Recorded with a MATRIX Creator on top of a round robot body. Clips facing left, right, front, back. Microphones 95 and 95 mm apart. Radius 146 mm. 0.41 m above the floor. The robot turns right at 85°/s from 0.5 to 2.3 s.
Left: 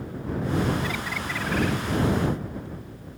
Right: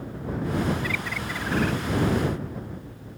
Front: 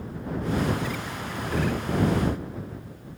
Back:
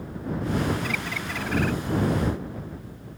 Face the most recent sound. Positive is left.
turn(degrees=-85)